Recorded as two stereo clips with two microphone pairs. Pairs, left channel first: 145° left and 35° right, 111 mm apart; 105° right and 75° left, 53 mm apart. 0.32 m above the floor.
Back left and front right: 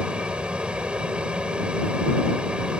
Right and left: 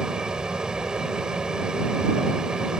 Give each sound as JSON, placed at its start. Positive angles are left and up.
{"t": 0.0, "sound": "an aircraft", "azimuth_deg": 30}